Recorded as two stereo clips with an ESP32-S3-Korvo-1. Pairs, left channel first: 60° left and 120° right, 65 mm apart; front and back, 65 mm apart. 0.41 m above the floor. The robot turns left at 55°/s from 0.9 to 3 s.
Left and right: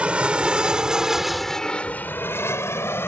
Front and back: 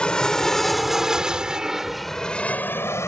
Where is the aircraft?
65° right; by 3.1 s 25° left.